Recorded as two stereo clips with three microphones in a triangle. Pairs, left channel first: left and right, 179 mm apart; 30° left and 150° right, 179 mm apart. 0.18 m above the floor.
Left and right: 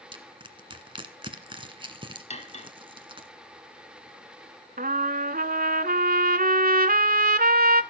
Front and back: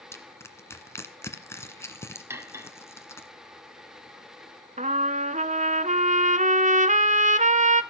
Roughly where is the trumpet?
Right.